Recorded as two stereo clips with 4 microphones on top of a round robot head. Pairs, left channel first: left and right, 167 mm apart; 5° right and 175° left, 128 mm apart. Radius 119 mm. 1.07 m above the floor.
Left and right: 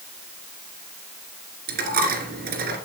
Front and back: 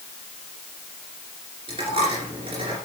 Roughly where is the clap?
No clap in this recording.